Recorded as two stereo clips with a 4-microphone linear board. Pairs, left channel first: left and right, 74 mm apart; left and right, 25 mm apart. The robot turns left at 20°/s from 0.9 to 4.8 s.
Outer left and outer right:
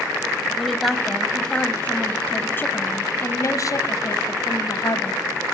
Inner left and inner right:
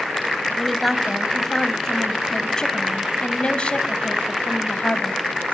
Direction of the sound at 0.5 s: Straight behind.